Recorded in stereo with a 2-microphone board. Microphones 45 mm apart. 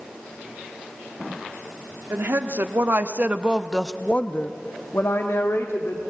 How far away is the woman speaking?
About 1.6 m.